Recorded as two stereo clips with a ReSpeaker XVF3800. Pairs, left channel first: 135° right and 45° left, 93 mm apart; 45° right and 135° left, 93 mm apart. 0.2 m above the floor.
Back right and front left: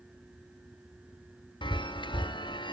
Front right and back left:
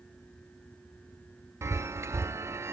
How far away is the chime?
About 0.6 m.